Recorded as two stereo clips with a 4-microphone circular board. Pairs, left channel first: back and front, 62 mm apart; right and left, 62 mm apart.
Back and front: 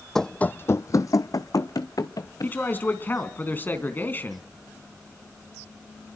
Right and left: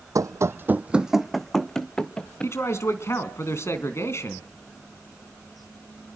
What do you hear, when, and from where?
0.1 s running footsteps: 95° left, 0.6 m; by 2.6 s 160° right, 1.8 m
2.4 s a man speaking: 125° right, 3 m